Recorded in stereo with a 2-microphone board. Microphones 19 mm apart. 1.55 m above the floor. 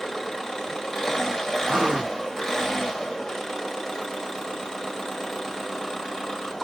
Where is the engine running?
35° left (ahead or behind), 1.9 m.